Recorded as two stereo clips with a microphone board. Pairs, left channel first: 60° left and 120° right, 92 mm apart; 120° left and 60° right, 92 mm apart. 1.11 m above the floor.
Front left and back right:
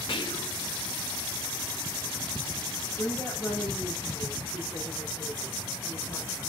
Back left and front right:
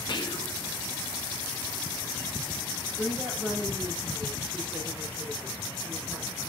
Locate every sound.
0.1 s whispering: 85° left, 0.9 m
3.0 s a woman speaking: straight ahead, 2.5 m